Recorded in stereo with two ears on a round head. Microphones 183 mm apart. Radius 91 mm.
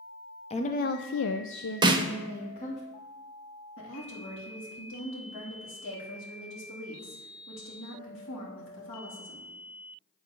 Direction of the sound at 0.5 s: 30° left (ahead or behind).